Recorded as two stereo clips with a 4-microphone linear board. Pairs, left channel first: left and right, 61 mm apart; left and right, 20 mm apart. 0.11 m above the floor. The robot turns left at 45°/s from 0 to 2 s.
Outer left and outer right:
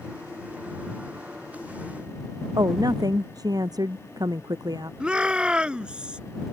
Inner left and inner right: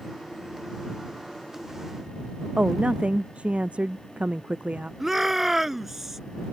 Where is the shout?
15° right (ahead or behind).